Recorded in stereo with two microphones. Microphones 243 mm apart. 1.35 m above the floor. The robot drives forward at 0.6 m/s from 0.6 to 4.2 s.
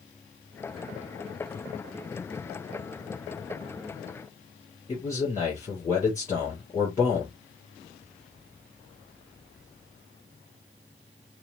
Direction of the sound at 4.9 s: 15° left (ahead or behind).